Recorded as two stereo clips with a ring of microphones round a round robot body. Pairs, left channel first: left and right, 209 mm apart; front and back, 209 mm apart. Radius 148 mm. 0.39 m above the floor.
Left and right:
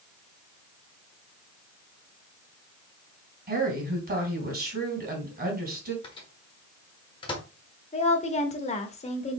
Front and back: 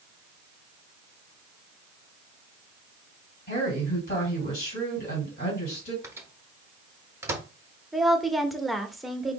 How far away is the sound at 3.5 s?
About 3 m.